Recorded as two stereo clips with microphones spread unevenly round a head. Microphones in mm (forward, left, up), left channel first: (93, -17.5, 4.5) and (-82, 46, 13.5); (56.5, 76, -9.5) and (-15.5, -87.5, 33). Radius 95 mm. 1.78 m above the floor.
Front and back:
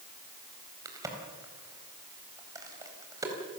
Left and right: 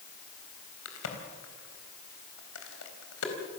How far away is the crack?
About 4 m.